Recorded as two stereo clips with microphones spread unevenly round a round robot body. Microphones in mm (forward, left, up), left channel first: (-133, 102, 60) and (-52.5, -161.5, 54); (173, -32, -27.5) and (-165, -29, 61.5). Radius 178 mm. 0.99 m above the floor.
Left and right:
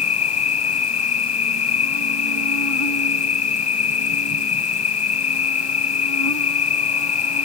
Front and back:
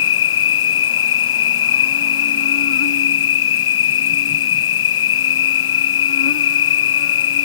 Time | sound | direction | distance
0.0 | an insect | 60° left | ?